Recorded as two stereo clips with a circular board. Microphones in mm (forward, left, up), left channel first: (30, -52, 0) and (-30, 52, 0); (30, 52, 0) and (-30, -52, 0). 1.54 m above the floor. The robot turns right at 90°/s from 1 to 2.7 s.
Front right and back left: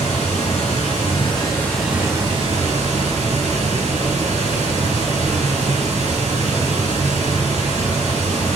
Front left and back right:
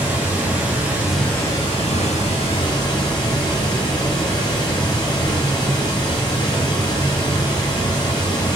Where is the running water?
40° right, 1.1 m; by 8.6 s 110° left, 1.1 m.